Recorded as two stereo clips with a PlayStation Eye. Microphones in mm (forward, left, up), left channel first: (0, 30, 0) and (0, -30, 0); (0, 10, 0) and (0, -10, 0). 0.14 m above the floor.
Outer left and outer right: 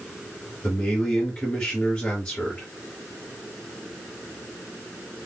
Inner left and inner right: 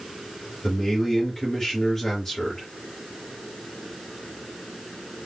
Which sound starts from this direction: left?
A man speaking, at 0.6 s.